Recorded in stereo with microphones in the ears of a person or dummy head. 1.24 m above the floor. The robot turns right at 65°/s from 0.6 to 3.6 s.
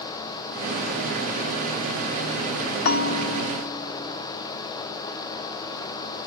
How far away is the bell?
About 1.5 m.